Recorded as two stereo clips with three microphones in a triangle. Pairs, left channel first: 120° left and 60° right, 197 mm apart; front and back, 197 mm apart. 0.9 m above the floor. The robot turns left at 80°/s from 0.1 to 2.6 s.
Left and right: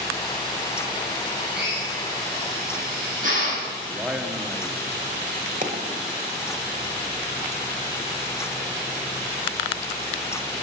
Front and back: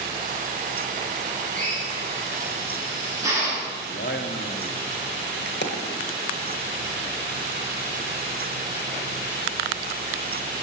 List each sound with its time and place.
1.6 s a drill: 25° right, 5.5 m; by 3.7 s 105° right, 5.5 m
3.9 s a man speaking: 25° left, 1.3 m
5.6 s a dropped coin: 15° right, 1.3 m